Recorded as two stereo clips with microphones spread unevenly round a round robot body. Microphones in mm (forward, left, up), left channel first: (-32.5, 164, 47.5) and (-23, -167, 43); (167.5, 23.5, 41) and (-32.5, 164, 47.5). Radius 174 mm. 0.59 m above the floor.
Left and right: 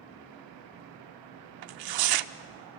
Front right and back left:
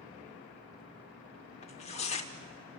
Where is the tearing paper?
105° right, 0.8 m.